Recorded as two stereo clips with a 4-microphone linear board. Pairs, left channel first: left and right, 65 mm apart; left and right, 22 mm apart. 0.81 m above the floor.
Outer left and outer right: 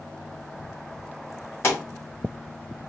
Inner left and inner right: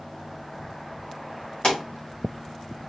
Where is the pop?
45° left (ahead or behind), 2.5 m.